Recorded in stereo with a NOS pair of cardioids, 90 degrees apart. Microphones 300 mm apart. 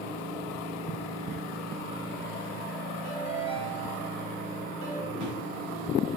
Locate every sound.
3.0 s a ringtone: 65° right, 4 m
5.1 s a drawer: 65° right, 5.5 m